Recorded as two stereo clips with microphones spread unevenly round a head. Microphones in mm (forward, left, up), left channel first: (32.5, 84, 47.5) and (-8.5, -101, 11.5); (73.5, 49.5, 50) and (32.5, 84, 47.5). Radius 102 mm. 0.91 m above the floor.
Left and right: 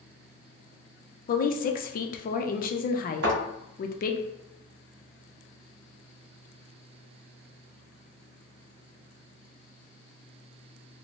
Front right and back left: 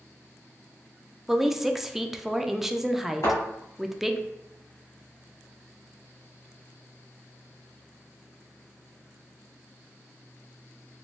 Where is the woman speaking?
65° left, 0.5 m.